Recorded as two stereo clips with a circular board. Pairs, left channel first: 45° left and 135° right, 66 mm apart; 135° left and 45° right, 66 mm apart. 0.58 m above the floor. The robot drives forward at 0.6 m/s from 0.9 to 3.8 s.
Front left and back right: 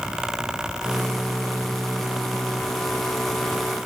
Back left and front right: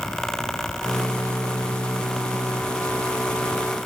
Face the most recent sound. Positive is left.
No sound to turn to.